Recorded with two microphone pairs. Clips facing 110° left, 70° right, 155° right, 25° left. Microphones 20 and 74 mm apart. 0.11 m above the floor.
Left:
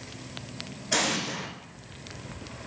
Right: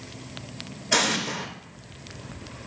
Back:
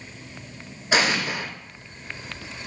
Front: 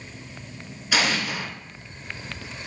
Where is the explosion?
125° right, 0.6 m.